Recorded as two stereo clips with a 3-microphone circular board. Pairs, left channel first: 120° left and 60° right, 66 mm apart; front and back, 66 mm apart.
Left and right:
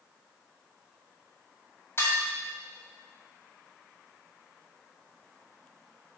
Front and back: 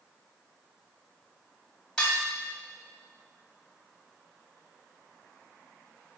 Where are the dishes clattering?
75° left, 1.9 m.